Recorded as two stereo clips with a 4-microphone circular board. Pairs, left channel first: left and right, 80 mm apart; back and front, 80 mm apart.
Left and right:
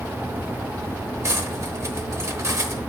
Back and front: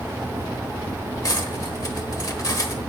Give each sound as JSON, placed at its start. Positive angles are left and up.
{"t": 1.2, "sound": "cutlery clinking", "azimuth_deg": -140, "distance_m": 0.9}